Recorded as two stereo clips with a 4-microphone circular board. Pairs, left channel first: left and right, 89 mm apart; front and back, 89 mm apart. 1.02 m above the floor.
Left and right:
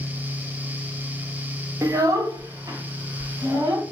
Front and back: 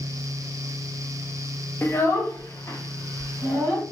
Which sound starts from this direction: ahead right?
A child speaking, at 1.8 s.